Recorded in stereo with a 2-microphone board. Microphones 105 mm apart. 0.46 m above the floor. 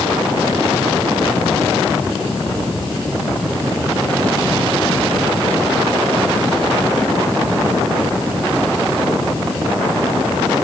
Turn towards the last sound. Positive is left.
No sound to turn to.